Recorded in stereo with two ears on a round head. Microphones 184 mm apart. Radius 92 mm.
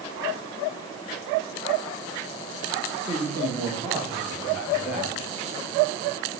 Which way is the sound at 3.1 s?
20° right (ahead or behind).